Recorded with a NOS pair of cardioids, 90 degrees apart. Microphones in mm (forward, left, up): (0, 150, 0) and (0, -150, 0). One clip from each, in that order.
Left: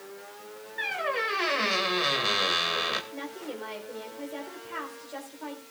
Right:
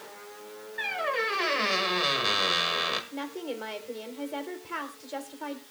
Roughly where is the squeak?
Ahead.